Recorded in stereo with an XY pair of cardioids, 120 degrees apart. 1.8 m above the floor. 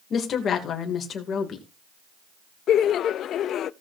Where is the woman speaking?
50° left, 3 m.